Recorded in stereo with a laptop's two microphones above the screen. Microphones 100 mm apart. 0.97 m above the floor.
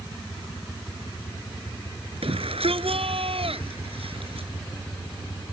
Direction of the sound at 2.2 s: 75° right (ahead or behind).